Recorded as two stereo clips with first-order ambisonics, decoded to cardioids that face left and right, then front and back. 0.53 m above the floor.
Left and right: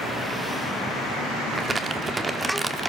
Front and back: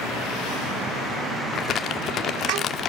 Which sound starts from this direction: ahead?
Crumpling, at 1.5 s.